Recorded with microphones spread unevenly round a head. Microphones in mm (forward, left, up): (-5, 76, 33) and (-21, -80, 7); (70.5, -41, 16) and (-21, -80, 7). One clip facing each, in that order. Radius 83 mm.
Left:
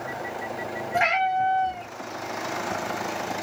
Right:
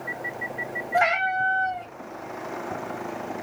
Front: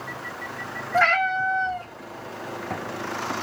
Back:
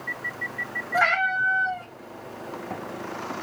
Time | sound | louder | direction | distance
0.9 | a cat meowing | even, front 2 dB | 125° left | 1.5 m